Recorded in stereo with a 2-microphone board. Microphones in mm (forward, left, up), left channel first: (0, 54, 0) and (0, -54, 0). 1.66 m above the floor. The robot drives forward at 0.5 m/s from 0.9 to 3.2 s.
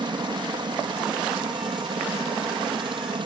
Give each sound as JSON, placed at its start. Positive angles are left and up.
{"t": 0.0, "sound": "a helicopter", "side_deg": -45}